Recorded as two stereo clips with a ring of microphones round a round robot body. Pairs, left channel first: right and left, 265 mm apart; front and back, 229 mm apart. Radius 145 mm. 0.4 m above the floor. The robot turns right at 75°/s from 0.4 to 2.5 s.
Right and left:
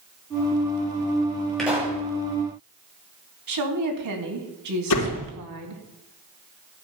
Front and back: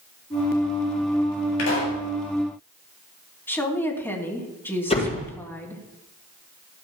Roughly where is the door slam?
Ahead right.